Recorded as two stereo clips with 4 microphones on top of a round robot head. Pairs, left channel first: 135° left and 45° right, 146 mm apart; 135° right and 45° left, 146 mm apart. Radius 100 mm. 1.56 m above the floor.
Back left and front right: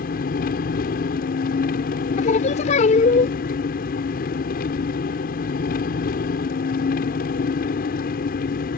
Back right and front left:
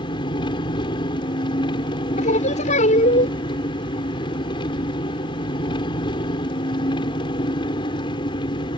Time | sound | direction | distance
0.0 | an engine running | 165° left | ?
2.2 | singing | straight behind | ?